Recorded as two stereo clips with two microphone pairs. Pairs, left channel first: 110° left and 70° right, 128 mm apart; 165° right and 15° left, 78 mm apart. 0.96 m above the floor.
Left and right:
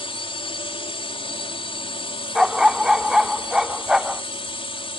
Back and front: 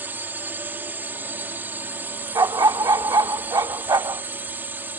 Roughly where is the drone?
Left.